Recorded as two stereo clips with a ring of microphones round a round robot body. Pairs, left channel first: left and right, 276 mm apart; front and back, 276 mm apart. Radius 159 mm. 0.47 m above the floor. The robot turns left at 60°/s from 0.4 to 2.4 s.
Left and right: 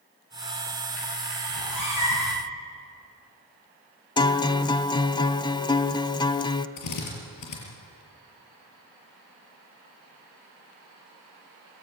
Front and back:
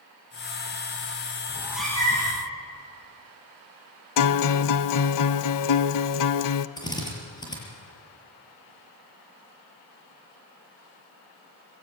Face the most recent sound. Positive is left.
turn(degrees=75)